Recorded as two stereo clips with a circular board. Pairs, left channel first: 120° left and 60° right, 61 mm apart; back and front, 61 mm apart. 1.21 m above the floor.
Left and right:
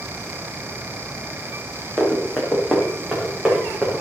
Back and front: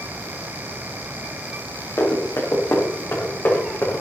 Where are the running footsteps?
145° right, 5.5 m; by 4.0 s 135° right, 6.5 m.